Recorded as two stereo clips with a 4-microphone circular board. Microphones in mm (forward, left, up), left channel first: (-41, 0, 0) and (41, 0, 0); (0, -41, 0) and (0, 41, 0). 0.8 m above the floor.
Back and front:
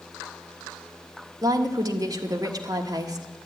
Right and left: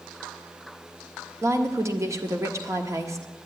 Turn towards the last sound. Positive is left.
turn(degrees=40)